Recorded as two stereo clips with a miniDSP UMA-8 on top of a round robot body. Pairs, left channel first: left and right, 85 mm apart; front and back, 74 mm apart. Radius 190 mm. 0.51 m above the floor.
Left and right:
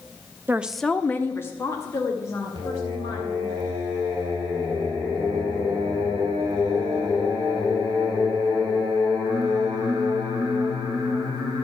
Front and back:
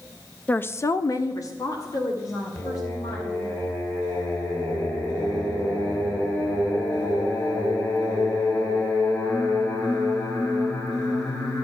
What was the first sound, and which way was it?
A woman speaking, 55° right.